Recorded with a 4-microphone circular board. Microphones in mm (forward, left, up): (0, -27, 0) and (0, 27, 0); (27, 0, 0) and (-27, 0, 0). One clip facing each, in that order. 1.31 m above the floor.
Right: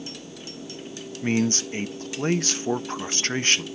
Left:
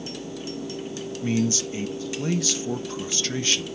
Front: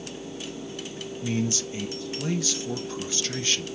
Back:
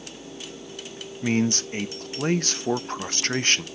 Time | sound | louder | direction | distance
1.2 | a man speaking | right 1 dB, back 5 dB | 140° right | 1.0 m